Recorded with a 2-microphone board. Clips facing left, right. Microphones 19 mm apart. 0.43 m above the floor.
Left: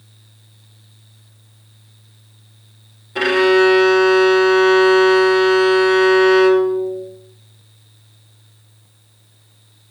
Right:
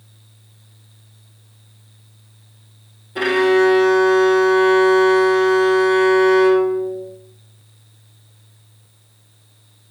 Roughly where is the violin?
Left.